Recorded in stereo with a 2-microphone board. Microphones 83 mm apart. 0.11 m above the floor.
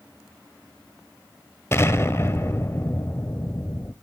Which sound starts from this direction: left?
An explosion, at 1.7 s.